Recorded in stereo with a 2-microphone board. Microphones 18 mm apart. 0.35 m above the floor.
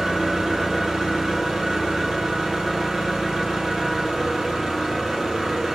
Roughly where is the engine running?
Right.